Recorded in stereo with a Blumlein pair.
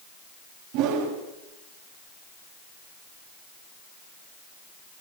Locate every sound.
0.7 s a whoosh: 45° right, 5 m